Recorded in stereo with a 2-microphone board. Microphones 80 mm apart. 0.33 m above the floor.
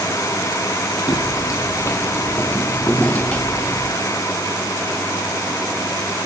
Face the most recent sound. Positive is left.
turn(degrees=15)  # may be behind; listen again after turning